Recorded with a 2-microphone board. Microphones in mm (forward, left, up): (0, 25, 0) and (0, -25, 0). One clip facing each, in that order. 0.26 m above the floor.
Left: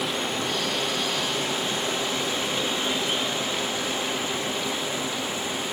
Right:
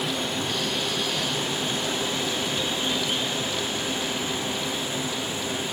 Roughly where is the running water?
Left.